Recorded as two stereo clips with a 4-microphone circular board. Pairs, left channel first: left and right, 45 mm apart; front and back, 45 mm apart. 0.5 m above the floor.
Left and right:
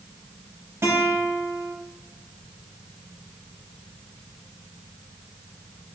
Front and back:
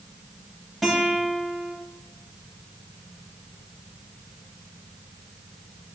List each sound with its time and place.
0.8 s a guitar: 85° right, 2 m